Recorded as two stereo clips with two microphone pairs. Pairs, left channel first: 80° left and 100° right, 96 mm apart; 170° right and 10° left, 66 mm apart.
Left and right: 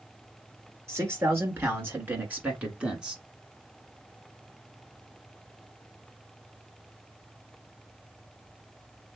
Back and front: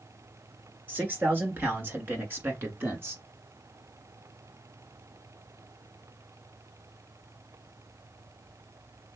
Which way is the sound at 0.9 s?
45° right.